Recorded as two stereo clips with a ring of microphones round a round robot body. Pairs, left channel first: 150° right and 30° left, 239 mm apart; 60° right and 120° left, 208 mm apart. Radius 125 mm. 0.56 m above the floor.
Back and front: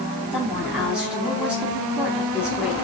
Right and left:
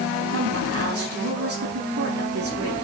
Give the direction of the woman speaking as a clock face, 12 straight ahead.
8 o'clock.